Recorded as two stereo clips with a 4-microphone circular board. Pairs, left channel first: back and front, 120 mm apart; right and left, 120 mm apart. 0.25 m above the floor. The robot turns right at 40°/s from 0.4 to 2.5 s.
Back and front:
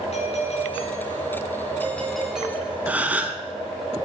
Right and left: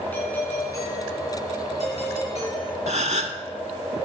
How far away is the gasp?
About 0.7 m.